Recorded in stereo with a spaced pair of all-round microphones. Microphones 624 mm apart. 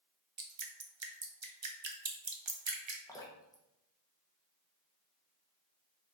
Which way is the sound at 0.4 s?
45° right (ahead or behind).